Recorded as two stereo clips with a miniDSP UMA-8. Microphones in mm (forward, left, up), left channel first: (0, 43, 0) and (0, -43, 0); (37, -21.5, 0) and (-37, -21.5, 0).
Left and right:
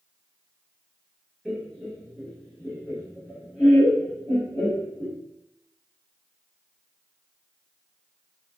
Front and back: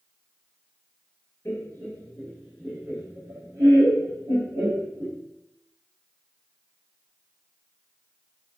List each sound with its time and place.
1.4 s laughter: 10° right, 1.7 m; by 5.2 s 140° left, 3 m